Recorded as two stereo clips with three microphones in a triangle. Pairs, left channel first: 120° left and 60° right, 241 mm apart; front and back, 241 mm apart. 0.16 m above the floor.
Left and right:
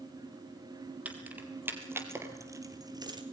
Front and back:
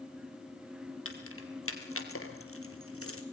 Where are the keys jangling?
25° left, 3.5 m; by 3.2 s 10° left, 2.5 m.